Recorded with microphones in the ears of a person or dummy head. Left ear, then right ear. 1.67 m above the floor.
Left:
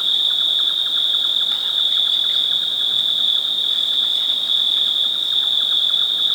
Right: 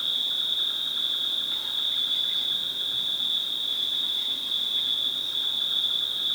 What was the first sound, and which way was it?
An insect, 35° left (ahead or behind).